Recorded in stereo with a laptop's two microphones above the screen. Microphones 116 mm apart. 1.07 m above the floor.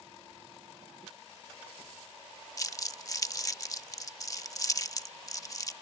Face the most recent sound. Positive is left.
turn(degrees=30)  # may be behind; listen again after turning